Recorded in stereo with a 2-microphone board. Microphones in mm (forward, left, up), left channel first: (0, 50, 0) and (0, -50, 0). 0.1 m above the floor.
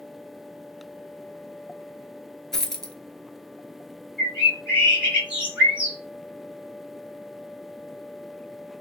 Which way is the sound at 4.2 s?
10° right (ahead or behind).